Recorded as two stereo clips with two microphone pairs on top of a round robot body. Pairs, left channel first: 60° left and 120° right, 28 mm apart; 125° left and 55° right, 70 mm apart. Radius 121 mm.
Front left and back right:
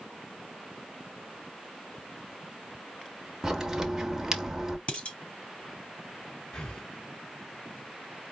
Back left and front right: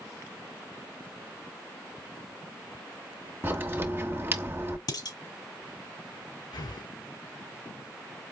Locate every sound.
3.4 s a crack: 35° right, 1.5 m
4.9 s dishes clattering: 105° left, 4 m
6.5 s breathing: 120° left, 2.5 m